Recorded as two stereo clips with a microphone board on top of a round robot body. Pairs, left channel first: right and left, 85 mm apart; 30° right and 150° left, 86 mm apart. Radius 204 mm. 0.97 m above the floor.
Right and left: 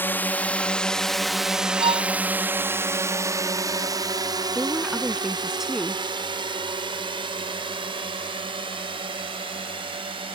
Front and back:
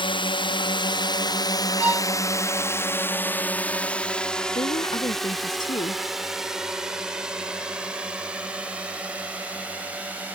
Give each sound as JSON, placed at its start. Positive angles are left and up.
{"t": 0.0, "sound": "a drone", "azimuth_deg": -25}
{"t": 1.8, "sound": "a violin", "azimuth_deg": 80}
{"t": 4.5, "sound": "a woman speaking", "azimuth_deg": 5}